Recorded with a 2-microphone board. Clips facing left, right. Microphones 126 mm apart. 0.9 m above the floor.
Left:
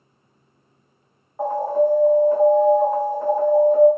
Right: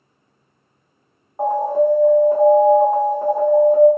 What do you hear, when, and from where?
1.4 s an alarm: 15° right (ahead or behind), 1.6 m